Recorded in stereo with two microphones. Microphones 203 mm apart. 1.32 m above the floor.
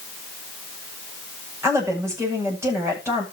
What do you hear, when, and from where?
1.6 s a woman speaking: 10° right (ahead or behind), 8.5 m